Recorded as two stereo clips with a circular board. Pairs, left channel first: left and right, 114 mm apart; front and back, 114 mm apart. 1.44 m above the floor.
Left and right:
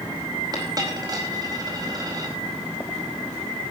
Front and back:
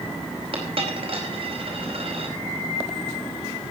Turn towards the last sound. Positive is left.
turn(degrees=-145)